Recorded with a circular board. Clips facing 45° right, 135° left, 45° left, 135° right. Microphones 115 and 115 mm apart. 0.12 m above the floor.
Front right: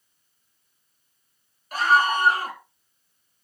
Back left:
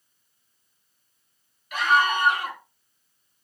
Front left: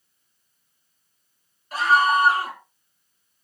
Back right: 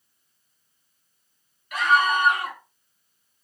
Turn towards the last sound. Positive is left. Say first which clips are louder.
# front right 1 dB, front left 2 dB
turn(degrees=-5)